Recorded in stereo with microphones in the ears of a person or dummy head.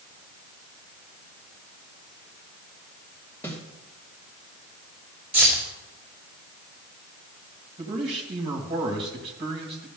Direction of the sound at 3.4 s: 10° left (ahead or behind).